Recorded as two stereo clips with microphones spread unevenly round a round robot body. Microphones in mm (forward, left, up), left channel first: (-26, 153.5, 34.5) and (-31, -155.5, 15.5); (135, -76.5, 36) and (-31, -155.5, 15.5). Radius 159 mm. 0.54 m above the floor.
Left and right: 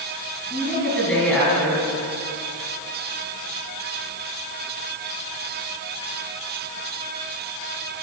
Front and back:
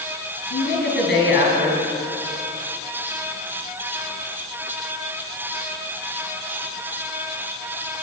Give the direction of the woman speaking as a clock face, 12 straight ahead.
12 o'clock.